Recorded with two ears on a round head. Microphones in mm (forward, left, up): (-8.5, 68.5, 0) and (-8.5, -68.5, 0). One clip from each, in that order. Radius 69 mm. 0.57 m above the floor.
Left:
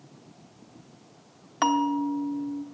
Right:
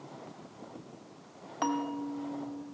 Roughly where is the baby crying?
I don't hear a baby crying.